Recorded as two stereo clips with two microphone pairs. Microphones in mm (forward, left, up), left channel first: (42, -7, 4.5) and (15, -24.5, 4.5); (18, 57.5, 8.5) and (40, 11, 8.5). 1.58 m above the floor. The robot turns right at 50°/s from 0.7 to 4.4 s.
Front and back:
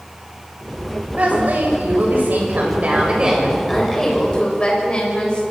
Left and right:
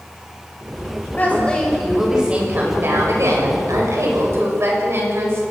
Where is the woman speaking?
170° left, 7 m; by 5.4 s 25° right, 7 m.